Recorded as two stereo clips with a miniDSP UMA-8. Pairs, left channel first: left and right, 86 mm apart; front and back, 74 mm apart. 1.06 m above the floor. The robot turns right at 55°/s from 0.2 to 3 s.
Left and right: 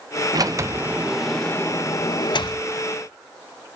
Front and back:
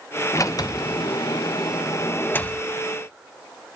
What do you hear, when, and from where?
0.3 s a sliding door: 50° right, 0.5 m; by 3.8 s 95° left, 0.5 m